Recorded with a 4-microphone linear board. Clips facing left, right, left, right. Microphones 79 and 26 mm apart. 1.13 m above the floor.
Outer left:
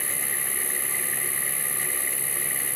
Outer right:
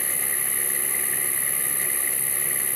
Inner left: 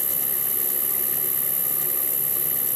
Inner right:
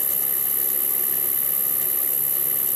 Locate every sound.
0.0 s an insect: 40° right (ahead or behind)